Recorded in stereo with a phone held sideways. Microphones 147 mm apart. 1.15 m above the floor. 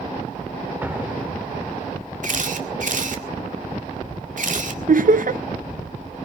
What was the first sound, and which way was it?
An explosion, 10° right (ahead or behind).